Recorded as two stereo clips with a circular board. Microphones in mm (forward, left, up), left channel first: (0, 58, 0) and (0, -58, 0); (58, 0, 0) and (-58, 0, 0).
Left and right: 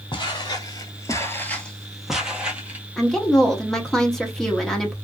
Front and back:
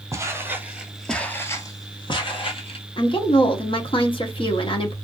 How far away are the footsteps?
About 0.9 m.